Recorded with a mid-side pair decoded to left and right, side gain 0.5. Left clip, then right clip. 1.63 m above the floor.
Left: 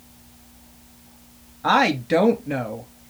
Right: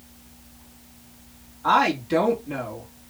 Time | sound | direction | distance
1.6 | a woman speaking | 60° left | 2.5 m